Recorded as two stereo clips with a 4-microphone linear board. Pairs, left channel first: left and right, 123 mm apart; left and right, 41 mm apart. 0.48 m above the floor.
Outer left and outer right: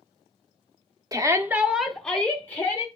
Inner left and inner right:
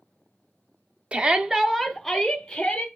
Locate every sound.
1.1 s a shout: 30° right (ahead or behind), 0.8 m; by 2.9 s 20° left (ahead or behind), 1.4 m